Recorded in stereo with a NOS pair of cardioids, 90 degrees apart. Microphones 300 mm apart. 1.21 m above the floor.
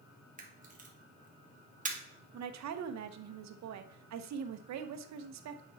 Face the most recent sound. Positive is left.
turn(degrees=-65)